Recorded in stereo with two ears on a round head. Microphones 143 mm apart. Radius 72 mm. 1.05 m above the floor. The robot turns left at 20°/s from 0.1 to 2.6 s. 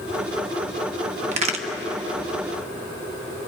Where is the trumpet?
No trumpet in this recording.